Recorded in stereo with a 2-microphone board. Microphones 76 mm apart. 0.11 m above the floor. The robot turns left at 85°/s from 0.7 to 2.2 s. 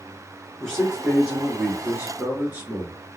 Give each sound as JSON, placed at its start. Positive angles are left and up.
{"t": 0.6, "sound": "a man speaking", "side_deg": 5, "distance_m": 1.8}